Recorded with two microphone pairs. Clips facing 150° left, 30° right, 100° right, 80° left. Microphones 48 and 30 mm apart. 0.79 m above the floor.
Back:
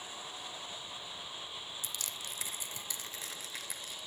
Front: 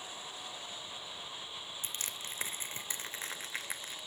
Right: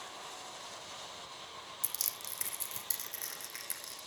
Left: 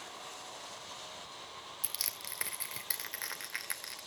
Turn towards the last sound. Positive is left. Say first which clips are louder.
# even, left 3 dB
turn(degrees=20)